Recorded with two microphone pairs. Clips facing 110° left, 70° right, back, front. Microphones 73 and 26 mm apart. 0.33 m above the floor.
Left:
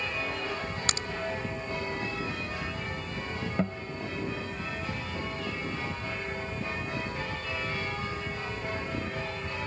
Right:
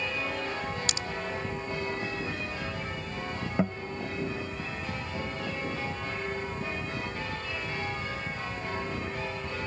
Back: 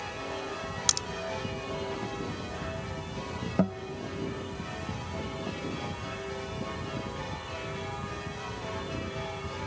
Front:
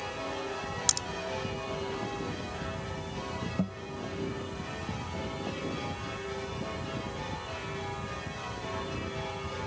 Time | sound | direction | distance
0.9 | a crack | 115° left | ?
3.6 | a guitar | 150° right | ?